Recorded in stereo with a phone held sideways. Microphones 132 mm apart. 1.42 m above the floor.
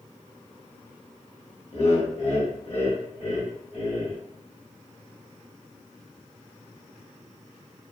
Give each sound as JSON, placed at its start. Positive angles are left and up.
{"t": 1.7, "sound": "laughter", "side_deg": 55, "distance_m": 1.2}